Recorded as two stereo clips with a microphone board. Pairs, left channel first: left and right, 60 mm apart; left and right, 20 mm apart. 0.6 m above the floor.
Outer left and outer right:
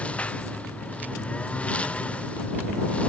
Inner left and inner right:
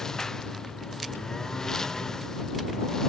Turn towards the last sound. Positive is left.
turn(degrees=20)  # may be behind; listen again after turning